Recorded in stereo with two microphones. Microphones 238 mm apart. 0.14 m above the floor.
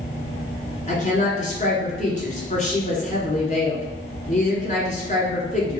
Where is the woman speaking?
30° left (ahead or behind), 1.5 m.